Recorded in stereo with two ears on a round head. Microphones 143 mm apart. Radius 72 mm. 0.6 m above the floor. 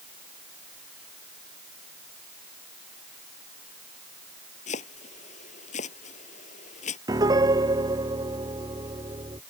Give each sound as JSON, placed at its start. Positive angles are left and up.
{"t": 4.7, "sound": "chopping", "side_deg": 50}
{"t": 7.1, "sound": "a piano", "side_deg": -25}